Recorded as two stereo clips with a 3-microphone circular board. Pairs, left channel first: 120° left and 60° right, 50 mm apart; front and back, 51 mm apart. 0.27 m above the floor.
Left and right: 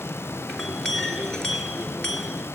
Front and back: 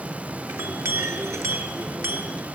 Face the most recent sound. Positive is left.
turn(degrees=-165)